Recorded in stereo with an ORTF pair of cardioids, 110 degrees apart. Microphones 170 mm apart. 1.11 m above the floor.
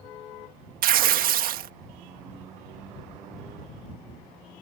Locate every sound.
0.8 s tearing paper: 60° right